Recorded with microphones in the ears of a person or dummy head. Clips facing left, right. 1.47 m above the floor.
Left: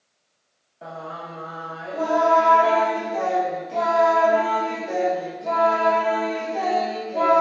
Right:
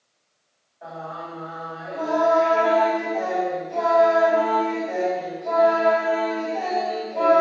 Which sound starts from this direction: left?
Singing, at 0.8 s.